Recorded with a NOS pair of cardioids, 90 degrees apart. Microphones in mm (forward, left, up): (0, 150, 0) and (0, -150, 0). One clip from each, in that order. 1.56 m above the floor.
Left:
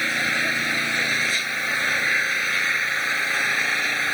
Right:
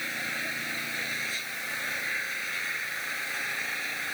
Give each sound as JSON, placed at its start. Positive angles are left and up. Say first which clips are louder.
{"t": 0.0, "sound": "an engine running", "louder": "left 10 dB", "azimuth_deg": 65}